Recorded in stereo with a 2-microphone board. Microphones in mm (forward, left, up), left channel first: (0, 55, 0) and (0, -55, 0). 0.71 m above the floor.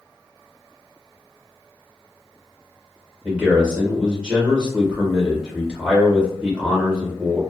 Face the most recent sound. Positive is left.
turn(degrees=-5)  # may be behind; listen again after turning